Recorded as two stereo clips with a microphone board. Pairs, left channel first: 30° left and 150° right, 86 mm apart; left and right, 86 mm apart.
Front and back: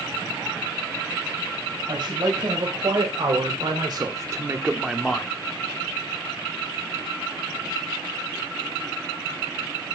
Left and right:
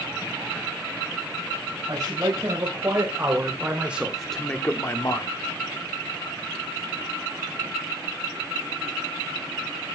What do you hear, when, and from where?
1.9 s a man speaking: 135° right, 4 m; by 5.3 s 105° left, 1.6 m